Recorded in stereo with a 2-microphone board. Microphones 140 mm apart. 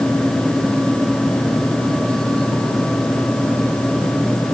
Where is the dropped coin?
No dropped coin in this recording.